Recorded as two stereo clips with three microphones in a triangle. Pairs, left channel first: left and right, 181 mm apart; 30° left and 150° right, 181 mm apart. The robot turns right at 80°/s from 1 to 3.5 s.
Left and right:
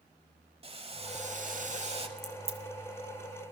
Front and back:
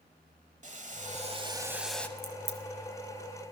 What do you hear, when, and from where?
0.6 s boiling: 135° right, 0.8 m; by 2.1 s 45° right, 0.8 m
2.2 s a crack: 170° right, 1.2 m; by 2.6 s 135° right, 1.2 m